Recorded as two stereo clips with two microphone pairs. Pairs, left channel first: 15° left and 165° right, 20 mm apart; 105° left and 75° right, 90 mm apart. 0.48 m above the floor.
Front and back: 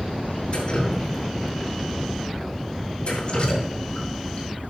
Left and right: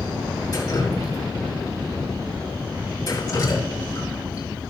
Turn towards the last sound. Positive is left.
turn(degrees=60)